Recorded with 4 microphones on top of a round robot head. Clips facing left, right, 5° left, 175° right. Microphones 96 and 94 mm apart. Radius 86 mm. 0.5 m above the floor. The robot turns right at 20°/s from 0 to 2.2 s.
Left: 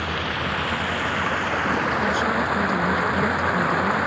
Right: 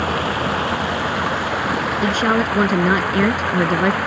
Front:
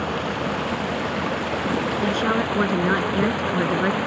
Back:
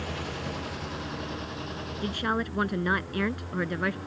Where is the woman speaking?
70° right; by 4.0 s 65° right.